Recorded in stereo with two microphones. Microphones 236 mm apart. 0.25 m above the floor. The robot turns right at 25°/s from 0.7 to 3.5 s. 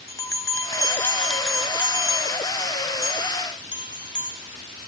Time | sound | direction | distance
0.1 | a bell | 160° left | 1.1 m